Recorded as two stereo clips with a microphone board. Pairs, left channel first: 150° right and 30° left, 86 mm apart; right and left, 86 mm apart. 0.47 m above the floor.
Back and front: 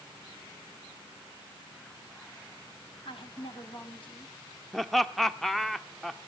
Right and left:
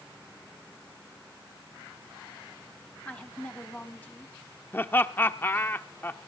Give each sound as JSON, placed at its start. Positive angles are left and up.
{"t": 3.0, "sound": "a woman speaking", "azimuth_deg": -160, "distance_m": 3.0}
{"t": 4.7, "sound": "laughter", "azimuth_deg": -65, "distance_m": 0.7}